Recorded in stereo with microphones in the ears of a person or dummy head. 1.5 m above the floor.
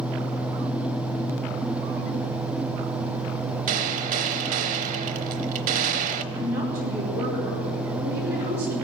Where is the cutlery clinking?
I don't hear cutlery clinking.